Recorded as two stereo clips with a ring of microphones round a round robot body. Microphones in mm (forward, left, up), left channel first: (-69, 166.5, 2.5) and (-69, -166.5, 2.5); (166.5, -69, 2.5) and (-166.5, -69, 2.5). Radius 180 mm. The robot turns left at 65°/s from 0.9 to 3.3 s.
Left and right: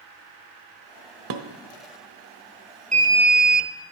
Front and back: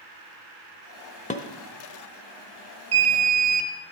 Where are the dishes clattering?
65° right, 1.3 m; by 1.4 s 75° right, 1.3 m.